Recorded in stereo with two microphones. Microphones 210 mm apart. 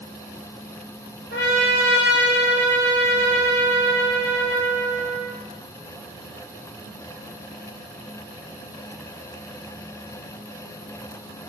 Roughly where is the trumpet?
Left.